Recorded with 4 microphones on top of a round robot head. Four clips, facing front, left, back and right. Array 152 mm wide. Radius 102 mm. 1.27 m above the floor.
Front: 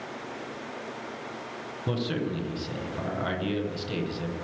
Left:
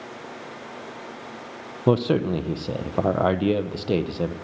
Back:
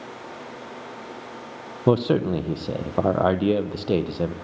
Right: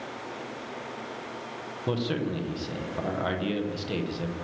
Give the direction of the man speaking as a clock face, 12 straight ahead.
7 o'clock.